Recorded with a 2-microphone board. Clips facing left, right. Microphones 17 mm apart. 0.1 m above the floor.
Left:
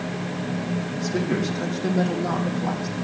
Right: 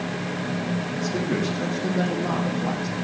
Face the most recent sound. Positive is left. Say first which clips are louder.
# left 1 dB
turn(degrees=0)  # may be behind; listen again after turning